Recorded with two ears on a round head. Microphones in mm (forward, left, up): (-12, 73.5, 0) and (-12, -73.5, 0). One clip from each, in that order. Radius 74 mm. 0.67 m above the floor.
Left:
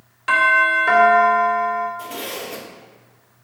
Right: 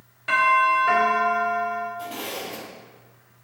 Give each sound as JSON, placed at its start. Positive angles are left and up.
{"t": 0.3, "sound": "a doorbell", "side_deg": 50, "distance_m": 3.0}
{"t": 2.0, "sound": "a zipper", "side_deg": 45, "distance_m": 2.0}